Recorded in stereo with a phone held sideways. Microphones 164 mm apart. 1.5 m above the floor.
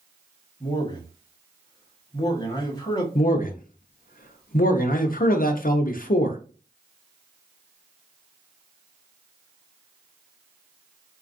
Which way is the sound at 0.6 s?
25° left (ahead or behind).